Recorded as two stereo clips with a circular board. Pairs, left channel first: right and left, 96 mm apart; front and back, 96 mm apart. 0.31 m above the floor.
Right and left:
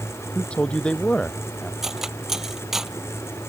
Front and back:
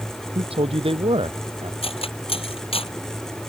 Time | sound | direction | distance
0.3 | a man speaking | 170° right | ?
1.8 | cutlery clinking | 5° left | ?